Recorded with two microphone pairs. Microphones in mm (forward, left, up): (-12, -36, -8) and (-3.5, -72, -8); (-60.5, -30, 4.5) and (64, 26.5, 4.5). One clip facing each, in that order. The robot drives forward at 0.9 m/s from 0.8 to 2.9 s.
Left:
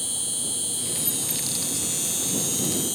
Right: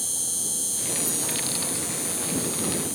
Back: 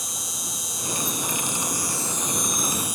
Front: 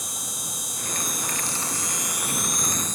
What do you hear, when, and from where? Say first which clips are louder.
0.0 s an insect: left 2 dB, back 1 dB; 55° left; by 3.0 s 125° left